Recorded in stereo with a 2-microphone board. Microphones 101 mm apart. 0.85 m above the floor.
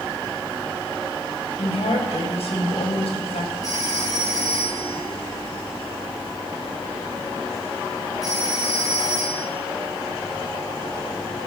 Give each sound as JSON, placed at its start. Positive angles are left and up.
{"t": 1.6, "sound": "a woman speaking", "side_deg": 80, "distance_m": 4.0}
{"t": 3.6, "sound": "a phone ringing", "side_deg": 40, "distance_m": 8.5}